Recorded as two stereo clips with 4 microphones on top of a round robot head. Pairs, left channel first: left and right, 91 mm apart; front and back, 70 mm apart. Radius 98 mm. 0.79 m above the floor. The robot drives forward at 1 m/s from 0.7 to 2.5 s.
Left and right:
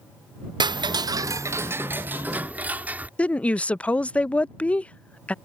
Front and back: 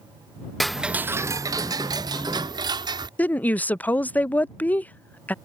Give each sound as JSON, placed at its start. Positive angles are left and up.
{"t": 0.6, "sound": "ticking", "azimuth_deg": -85}
{"t": 3.2, "sound": "a woman speaking", "azimuth_deg": 30}